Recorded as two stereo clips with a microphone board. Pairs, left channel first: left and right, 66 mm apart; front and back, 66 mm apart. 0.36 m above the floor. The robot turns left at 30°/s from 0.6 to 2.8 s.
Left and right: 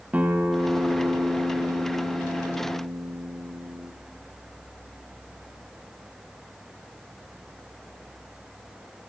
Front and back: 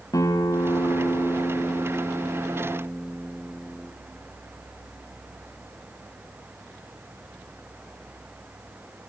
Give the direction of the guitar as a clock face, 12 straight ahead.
1 o'clock.